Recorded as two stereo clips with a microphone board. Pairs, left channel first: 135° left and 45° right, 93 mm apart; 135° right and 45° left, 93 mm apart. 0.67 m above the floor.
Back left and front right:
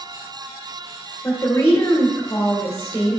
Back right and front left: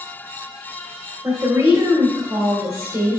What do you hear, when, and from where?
1.2 s a woman speaking: 80° left, 2.5 m